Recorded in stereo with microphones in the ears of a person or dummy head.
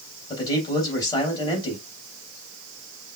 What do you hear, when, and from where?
0.3 s a man speaking: 20° left (ahead or behind), 3 m